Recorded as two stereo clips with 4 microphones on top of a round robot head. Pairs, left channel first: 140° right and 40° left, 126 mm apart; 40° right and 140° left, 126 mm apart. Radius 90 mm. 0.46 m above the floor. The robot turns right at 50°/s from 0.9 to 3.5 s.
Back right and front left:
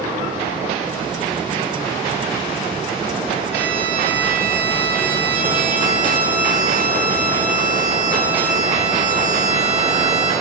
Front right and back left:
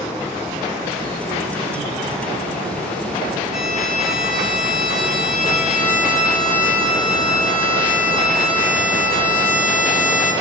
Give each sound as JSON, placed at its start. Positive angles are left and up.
{"t": 3.5, "sound": "a violin", "azimuth_deg": -35, "distance_m": 7.0}